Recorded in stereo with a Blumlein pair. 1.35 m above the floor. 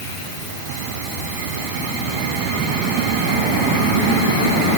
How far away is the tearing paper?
I don't hear tearing paper.